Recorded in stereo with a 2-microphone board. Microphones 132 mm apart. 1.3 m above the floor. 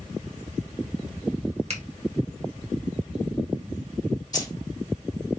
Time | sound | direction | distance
1.7 | a finger snap | 50° right (ahead or behind) | 1.2 m
4.3 | keys jangling | 30° left (ahead or behind) | 1.8 m